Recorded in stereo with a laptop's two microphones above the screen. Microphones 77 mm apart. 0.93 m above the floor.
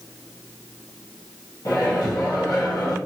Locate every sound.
1.6 s a microwave: 55° left (ahead or behind), 1.1 m